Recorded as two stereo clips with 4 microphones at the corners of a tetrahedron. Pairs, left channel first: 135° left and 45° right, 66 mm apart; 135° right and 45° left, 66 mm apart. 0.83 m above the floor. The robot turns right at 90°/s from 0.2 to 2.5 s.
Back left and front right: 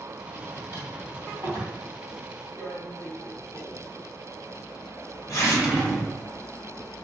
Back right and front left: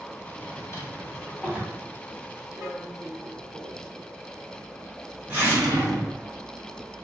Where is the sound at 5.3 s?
30° left, 0.7 m.